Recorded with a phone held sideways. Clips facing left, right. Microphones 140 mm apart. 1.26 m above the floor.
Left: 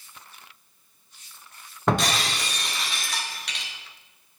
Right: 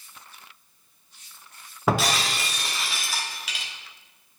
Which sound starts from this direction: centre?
Breaking glass, at 1.9 s.